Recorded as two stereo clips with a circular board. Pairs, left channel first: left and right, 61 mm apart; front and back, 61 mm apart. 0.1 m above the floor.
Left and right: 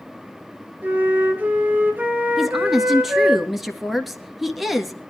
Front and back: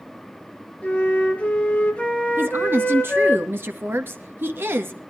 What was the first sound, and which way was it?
A flute, 50° right.